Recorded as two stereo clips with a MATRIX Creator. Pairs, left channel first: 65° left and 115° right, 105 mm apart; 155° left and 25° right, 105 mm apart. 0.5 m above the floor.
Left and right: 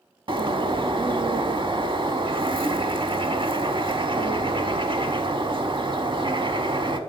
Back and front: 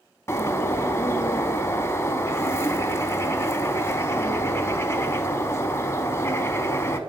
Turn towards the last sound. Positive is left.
turn(degrees=-140)